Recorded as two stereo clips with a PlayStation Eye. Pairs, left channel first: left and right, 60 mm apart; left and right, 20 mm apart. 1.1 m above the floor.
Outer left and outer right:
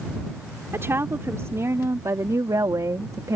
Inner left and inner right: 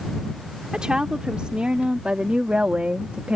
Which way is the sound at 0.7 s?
45° right (ahead or behind).